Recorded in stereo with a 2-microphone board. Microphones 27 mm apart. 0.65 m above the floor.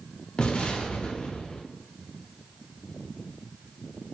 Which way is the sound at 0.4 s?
40° left (ahead or behind).